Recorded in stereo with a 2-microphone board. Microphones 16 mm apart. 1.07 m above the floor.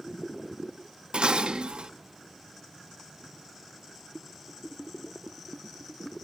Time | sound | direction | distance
1.1 | dishes clattering | 80° right | 1.1 m